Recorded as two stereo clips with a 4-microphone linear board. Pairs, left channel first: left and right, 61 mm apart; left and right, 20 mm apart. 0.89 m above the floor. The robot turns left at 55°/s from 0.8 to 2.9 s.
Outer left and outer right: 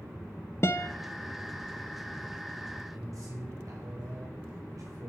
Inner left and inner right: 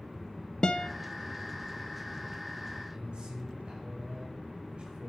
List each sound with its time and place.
0.6 s a guitar: 40° left (ahead or behind), 0.8 m
2.9 s a man speaking: 65° right (ahead or behind), 5 m